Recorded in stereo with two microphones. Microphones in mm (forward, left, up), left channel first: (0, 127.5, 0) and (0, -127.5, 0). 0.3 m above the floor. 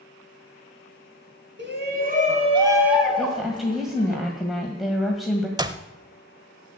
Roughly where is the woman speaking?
Centre.